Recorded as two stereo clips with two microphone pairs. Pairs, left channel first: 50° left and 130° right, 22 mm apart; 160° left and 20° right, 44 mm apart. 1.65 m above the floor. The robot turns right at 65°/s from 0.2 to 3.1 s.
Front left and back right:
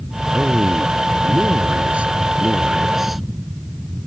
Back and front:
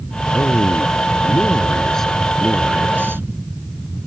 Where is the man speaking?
130° left; by 3.2 s 50° right.